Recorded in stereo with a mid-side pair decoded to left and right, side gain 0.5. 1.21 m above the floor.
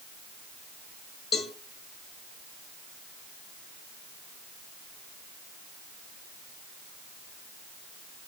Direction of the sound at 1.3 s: 40° left.